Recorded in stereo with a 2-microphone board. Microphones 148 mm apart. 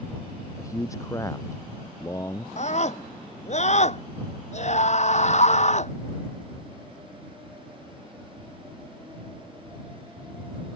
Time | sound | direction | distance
0.6 | a man speaking | 20° left (ahead or behind) | ?
2.6 | a scream | 50° left (ahead or behind) | ?